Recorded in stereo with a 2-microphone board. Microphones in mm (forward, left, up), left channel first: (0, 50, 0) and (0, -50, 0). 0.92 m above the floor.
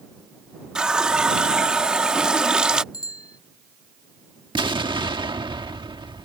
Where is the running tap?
5° right (ahead or behind).